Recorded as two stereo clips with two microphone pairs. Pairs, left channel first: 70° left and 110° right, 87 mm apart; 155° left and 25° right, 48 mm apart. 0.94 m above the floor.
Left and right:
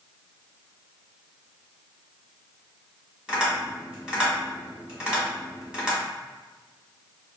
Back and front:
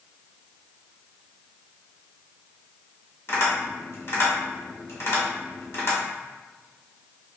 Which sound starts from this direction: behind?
Tapping, at 3.3 s.